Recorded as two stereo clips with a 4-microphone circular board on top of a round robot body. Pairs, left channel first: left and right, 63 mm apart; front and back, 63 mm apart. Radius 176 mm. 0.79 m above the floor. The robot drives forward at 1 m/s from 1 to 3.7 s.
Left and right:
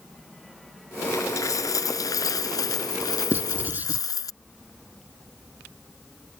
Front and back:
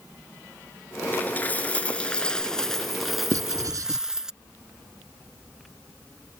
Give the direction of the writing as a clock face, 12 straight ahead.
5 o'clock.